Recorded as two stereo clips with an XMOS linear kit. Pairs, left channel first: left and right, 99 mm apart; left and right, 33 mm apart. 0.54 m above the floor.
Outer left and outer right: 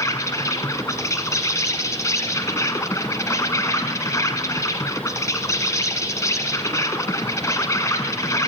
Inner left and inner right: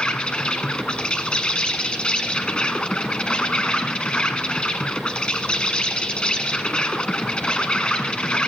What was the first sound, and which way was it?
An insect, 30° left (ahead or behind).